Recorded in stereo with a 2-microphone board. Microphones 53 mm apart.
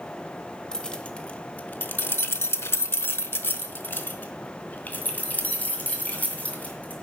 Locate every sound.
0.7 s keys jangling: 15° left (ahead or behind), 1.0 m; by 6.9 s 30° left (ahead or behind), 2.5 m